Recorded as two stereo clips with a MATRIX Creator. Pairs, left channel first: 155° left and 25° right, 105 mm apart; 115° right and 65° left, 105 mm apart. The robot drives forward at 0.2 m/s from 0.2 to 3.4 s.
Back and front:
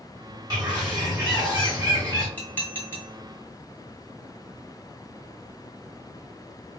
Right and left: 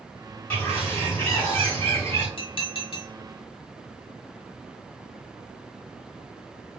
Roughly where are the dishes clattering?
Behind right.